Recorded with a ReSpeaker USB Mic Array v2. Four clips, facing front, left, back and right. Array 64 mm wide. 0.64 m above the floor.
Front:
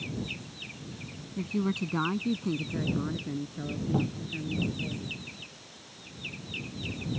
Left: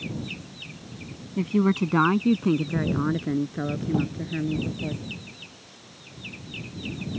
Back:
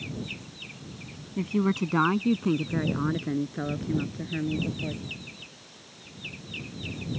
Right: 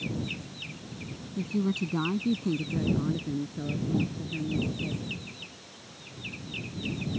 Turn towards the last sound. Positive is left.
turn(degrees=40)